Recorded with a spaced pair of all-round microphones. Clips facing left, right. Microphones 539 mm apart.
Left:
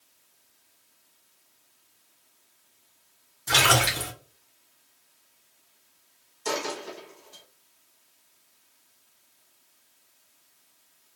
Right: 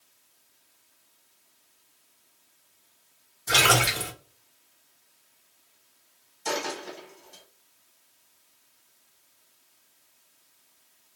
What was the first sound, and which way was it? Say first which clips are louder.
A splash: right 1 dB; 20° left (ahead or behind).